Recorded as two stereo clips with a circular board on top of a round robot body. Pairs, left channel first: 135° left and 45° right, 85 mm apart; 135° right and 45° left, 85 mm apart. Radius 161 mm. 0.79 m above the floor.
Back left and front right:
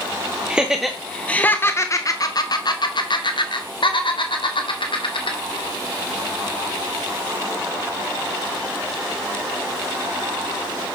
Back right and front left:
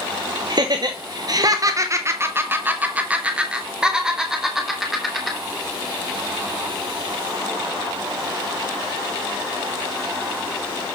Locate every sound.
0.5 s laughter: 30° left, 0.9 m; by 5.4 s 135° left, 2 m